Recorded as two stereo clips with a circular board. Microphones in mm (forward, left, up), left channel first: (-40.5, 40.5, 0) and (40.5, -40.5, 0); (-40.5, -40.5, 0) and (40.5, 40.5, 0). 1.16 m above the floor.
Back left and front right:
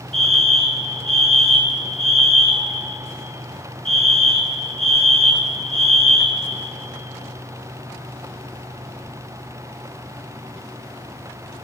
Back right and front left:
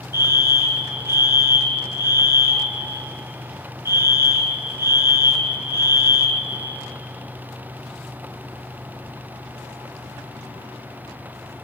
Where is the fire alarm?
20° right, 2.5 m.